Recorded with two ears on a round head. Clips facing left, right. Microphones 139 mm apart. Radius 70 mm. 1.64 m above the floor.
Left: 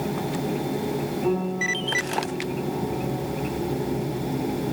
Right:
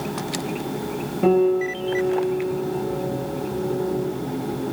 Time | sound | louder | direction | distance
1.2 | a piano | right 11 dB | 85° right | 6.5 m